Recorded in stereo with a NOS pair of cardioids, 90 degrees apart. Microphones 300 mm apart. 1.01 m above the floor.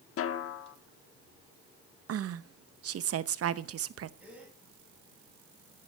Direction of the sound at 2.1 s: 55° right.